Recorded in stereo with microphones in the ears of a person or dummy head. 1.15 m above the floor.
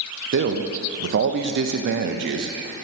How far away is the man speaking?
About 0.6 m.